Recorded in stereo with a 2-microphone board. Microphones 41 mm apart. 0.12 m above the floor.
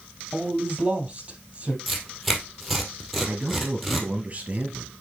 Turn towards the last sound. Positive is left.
turn(degrees=-30)  # may be behind; listen again after turning